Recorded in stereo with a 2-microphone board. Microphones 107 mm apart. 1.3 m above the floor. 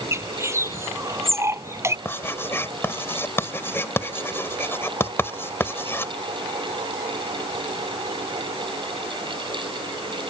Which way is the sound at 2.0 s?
20° left (ahead or behind).